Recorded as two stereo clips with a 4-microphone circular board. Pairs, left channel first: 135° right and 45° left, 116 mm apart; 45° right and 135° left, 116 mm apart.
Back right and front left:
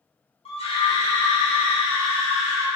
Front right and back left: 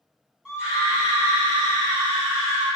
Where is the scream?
145° right, 1.0 m; by 2.7 s 165° left, 1.6 m.